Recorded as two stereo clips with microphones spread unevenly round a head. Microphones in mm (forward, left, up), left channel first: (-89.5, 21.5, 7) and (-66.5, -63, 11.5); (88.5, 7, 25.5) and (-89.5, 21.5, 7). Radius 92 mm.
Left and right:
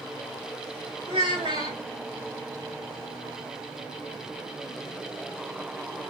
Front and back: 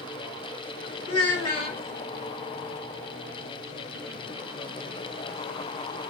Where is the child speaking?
5° right, 1.4 m.